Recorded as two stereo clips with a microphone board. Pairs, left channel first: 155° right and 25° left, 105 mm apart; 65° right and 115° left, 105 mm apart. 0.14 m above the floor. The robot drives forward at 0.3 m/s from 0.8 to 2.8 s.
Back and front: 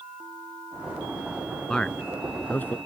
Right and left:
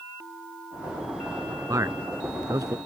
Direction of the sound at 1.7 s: 125° left.